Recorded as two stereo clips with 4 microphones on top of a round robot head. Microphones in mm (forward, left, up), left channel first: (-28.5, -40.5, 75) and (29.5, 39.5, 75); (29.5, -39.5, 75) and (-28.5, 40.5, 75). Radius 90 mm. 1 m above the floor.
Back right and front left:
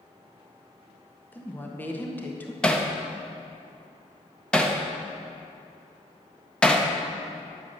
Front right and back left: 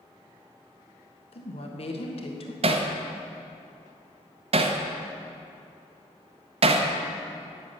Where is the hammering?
150° left, 0.9 m.